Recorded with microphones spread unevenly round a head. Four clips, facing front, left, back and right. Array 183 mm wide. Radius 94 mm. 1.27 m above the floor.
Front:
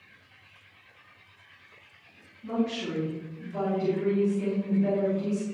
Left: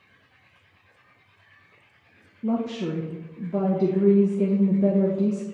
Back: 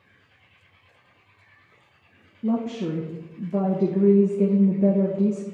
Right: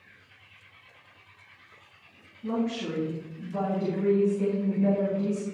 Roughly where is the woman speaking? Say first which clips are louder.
Left 3 dB, back 4 dB; behind left.